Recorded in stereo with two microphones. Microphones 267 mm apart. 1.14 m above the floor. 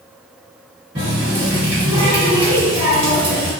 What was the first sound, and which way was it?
A running tap, 20° right (ahead or behind).